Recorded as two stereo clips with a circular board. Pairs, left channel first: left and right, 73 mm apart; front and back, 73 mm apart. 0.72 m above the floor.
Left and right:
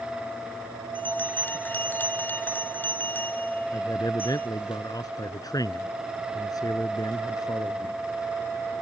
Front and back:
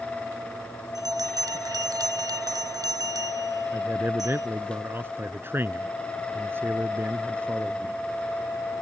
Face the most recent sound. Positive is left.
turn(degrees=120)